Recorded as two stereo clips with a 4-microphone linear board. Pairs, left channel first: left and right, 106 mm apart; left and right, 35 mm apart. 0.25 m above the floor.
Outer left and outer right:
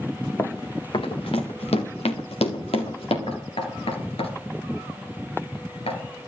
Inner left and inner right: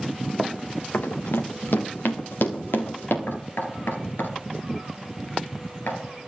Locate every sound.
0.4 s running footsteps: 25° left (ahead or behind), 1.5 m; by 3.2 s 70° left (ahead or behind), 4 m
3.3 s knocking: 75° left (ahead or behind), 2.5 m